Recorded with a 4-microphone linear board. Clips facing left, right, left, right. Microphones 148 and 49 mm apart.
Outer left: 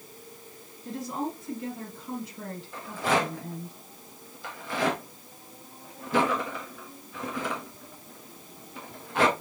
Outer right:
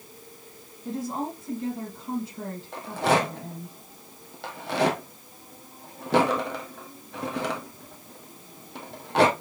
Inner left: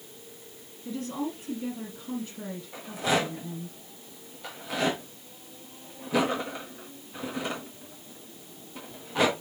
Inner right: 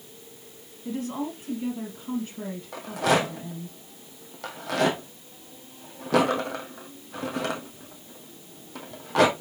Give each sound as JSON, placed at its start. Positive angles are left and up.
{"t": 0.8, "sound": "a woman speaking", "side_deg": -30, "distance_m": 4.5}
{"t": 2.7, "sound": "a rattle", "side_deg": -75, "distance_m": 2.0}